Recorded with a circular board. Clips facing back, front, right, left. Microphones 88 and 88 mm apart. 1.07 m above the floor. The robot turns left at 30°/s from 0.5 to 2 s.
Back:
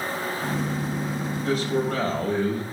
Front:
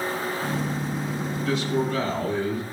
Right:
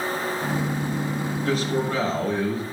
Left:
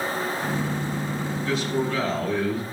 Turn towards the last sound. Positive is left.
turn(degrees=-150)